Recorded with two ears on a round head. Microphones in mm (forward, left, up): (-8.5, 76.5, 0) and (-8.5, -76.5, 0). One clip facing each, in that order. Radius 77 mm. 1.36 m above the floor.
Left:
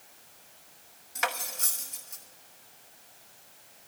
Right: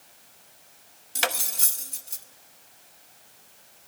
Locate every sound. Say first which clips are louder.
1.1 s cutlery clinking: right 2 dB; 35° right (ahead or behind), 0.8 m